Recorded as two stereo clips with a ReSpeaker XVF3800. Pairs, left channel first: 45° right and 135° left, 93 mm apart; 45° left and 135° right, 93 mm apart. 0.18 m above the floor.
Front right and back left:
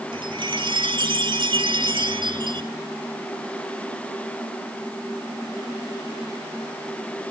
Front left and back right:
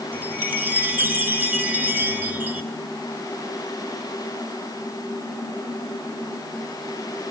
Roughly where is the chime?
Behind left.